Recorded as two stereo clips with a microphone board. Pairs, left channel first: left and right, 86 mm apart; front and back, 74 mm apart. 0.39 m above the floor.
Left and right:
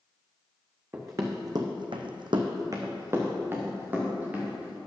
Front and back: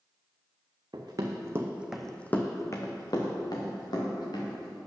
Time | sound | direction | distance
0.9 | running footsteps | 150° right | 1.9 m